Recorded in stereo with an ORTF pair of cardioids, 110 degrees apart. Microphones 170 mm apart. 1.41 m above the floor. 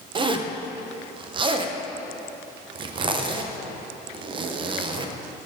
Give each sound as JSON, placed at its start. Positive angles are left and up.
{"t": 0.1, "sound": "a zipper", "azimuth_deg": -30, "distance_m": 0.8}